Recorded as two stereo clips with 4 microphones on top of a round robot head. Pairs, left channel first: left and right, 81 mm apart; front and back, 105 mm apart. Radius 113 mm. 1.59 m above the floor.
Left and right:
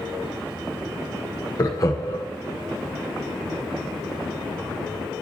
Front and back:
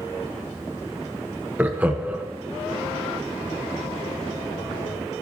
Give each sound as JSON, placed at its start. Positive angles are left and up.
{"t": 1.6, "sound": "laughter", "azimuth_deg": 115, "distance_m": 0.5}